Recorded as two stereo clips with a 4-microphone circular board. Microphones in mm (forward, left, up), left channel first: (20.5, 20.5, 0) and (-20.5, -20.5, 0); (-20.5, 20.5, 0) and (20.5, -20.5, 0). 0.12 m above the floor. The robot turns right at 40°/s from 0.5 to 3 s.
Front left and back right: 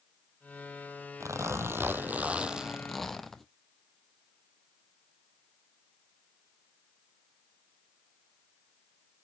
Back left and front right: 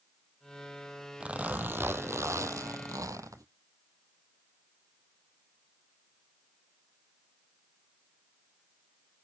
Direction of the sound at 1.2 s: 115° right.